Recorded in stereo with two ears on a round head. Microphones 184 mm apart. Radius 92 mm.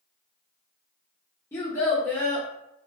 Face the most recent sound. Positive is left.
turn(degrees=10)  # may be behind; listen again after turning